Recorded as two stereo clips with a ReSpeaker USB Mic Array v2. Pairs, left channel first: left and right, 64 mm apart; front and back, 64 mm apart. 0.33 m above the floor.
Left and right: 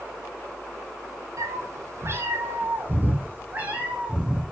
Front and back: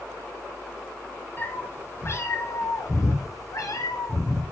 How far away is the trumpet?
I don't hear a trumpet.